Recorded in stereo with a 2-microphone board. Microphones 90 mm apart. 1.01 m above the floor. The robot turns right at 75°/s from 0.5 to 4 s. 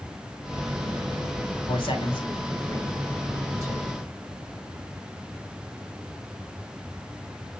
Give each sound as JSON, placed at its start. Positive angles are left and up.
{"t": 1.7, "sound": "a man speaking", "side_deg": 70, "distance_m": 3.0}